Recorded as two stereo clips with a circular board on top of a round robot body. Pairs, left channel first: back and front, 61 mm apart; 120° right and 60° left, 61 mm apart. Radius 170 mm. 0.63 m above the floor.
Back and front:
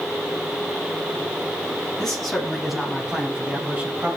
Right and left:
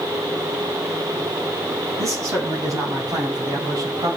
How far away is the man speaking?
About 5 m.